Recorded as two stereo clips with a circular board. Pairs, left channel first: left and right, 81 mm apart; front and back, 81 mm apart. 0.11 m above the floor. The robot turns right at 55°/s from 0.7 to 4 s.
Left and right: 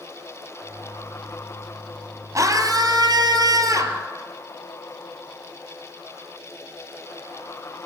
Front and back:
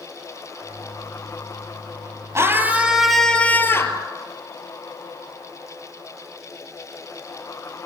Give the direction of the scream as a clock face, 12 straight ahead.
4 o'clock.